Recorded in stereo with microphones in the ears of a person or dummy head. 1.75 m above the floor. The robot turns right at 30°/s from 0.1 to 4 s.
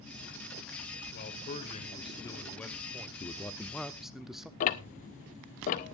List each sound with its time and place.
1.1 s a man speaking: 130° left, 1.6 m; by 3.1 s 175° right, 1.6 m
3.2 s a man speaking: 20° left (ahead or behind), 0.8 m; by 4.5 s 5° right (ahead or behind), 0.8 m
4.6 s ticking: 45° left (ahead or behind), 0.7 m